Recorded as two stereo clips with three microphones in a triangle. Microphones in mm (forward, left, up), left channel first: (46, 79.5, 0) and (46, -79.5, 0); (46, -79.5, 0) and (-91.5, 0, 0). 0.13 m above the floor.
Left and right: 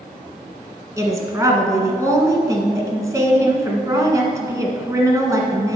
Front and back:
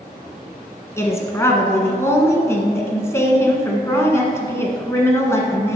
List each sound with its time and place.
1.0 s a woman speaking: 70° right, 1.2 m